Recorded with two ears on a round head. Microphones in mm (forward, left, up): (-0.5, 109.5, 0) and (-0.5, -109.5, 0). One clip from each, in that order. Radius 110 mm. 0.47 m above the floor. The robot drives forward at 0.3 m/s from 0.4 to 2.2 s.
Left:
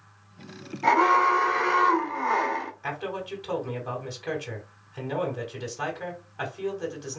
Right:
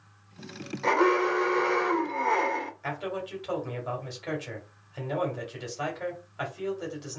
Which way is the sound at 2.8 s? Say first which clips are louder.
Left 1 dB; 5° right (ahead or behind).